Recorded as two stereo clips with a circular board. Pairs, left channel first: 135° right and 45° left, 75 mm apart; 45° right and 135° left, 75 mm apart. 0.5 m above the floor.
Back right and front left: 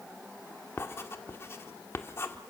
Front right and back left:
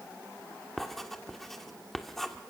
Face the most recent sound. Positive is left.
turn(degrees=-130)